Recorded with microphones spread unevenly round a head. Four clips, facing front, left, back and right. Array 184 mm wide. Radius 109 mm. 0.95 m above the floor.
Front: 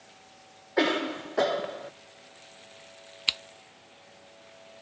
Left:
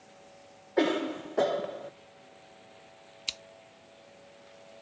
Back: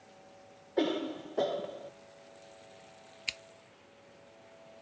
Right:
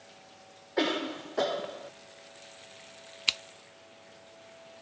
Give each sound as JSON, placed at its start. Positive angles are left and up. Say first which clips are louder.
{"t": 0.8, "sound": "a cough", "louder": "left 3 dB, front 5 dB", "azimuth_deg": 50}
{"t": 3.3, "sound": "scissors", "louder": "right 9 dB, front 7 dB", "azimuth_deg": -40}